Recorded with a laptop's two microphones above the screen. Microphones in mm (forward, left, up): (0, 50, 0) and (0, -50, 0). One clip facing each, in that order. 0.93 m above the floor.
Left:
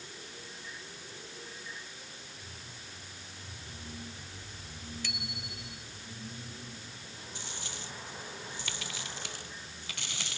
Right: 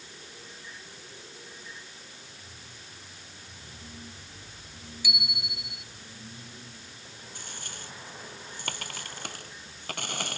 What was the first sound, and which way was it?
A bicycle bell, 10° right (ahead or behind).